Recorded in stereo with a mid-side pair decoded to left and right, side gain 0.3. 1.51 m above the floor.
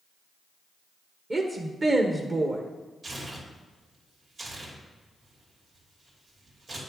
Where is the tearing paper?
55° right, 3 m.